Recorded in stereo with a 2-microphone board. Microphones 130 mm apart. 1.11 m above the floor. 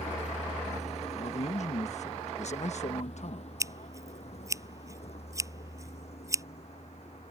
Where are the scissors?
25° right (ahead or behind).